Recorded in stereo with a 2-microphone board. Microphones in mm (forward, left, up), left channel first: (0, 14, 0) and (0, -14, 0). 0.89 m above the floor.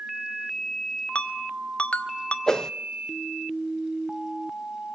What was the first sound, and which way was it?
A ringtone, 45° left (ahead or behind).